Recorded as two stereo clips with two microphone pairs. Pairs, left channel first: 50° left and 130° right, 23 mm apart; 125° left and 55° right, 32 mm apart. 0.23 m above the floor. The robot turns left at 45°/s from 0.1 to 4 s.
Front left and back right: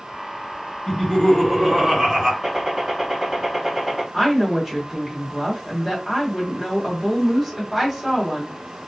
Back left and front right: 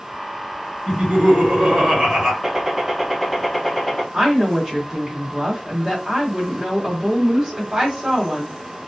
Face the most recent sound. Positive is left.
turn(degrees=-105)